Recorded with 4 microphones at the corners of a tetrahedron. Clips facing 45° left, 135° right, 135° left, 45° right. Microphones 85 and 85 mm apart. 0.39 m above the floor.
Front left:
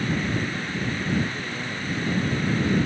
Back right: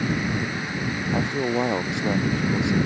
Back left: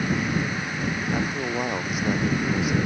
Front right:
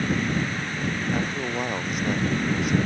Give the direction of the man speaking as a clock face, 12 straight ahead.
5 o'clock.